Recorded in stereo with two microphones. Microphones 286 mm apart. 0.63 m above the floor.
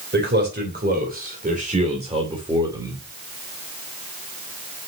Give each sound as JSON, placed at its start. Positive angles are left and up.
{"t": 0.1, "sound": "a man speaking", "side_deg": -40, "distance_m": 3.0}